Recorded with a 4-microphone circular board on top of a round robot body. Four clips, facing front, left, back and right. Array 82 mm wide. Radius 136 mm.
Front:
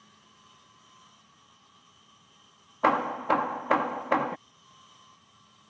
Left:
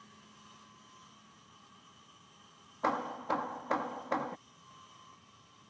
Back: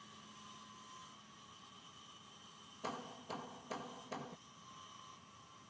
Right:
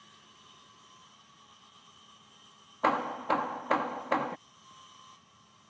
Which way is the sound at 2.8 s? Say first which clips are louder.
Right 5 dB, front 22 dB; 15° right.